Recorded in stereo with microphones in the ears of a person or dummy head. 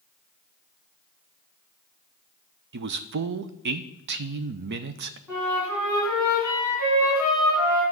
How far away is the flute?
About 4 m.